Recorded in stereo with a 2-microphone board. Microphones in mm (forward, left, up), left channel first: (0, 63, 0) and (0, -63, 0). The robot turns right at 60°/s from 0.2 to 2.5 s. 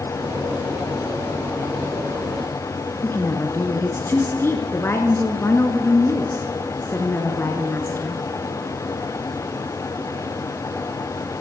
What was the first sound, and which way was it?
A woman speaking, 20° left (ahead or behind).